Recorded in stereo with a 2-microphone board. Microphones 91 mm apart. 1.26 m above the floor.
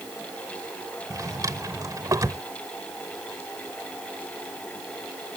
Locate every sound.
1.1 s a drawer: 40° right (ahead or behind)